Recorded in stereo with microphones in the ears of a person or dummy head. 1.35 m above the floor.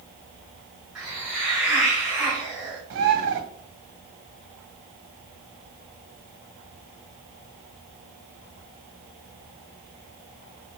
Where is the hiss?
Centre (ahead or behind), 1.9 m.